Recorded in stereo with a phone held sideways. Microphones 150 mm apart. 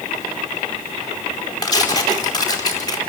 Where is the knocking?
No knocking in this recording.